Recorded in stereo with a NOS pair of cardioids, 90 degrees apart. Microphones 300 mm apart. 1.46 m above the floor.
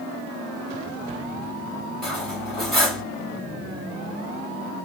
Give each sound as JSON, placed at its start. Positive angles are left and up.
{"t": 2.0, "sound": "cutlery clinking", "azimuth_deg": 0, "distance_m": 2.0}